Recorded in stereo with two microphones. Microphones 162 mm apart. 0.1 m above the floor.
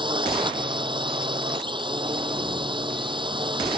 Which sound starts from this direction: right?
A drone, at 0.0 s.